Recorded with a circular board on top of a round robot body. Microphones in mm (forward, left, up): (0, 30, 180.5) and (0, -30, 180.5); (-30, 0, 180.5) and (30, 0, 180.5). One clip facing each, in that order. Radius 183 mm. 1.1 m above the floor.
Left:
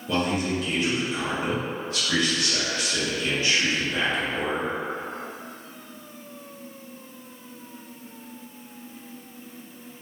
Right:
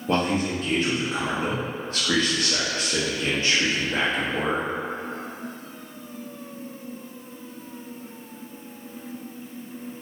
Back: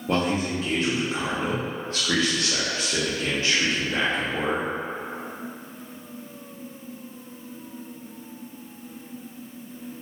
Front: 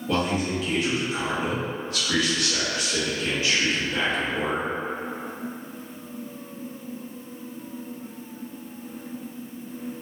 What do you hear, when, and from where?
0.1 s a man speaking: 130° right, 0.7 m